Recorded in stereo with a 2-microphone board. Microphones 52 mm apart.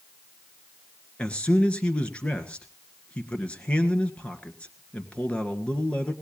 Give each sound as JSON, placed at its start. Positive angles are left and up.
{"t": 1.2, "sound": "a man speaking", "side_deg": 25, "distance_m": 2.0}